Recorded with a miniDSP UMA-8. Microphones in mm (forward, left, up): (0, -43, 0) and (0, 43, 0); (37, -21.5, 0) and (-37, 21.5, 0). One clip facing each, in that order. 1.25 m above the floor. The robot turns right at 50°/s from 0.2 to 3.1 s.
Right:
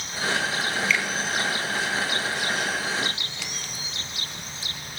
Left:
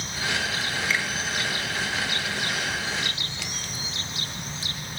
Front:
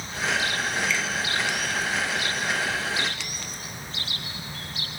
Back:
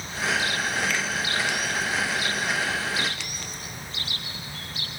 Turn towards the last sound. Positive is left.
turn(degrees=-115)